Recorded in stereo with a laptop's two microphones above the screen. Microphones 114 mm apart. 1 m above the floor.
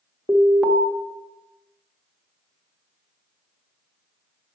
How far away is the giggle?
I don't hear a giggle.